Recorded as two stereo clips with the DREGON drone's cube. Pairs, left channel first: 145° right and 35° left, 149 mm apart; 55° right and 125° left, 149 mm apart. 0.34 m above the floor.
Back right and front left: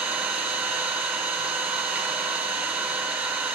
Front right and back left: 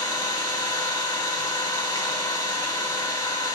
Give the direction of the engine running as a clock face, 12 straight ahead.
1 o'clock.